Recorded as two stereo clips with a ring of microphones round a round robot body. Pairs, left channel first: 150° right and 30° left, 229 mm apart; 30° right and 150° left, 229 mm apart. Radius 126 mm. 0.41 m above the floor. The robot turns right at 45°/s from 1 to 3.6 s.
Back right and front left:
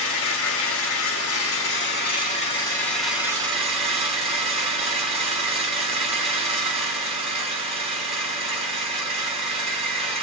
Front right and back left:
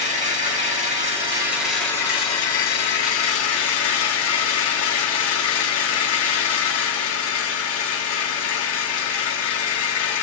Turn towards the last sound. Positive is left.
turn(degrees=-35)